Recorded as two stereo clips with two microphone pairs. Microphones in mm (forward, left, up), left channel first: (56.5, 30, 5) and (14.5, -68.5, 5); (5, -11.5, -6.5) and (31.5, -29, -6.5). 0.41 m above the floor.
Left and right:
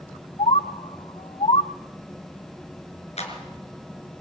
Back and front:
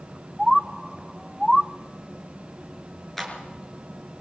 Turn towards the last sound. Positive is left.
turn(degrees=65)